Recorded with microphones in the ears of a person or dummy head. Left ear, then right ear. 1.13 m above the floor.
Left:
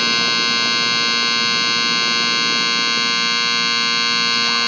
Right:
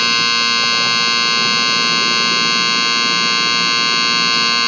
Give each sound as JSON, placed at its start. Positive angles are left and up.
{"t": 0.0, "sound": "a machine running", "side_deg": -5}